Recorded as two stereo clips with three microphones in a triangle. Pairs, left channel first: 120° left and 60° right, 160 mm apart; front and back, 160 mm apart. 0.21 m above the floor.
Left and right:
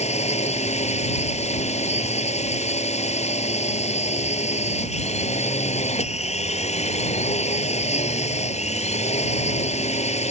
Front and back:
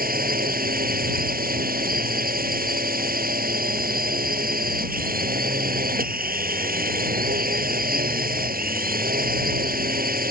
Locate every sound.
0.0 s a drone: 165° left